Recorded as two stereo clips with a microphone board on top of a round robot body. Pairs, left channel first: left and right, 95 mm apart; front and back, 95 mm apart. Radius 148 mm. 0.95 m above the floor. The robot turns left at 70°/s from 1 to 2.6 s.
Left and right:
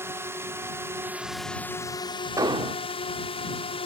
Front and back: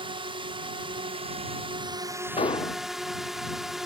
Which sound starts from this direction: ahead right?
An explosion, at 2.4 s.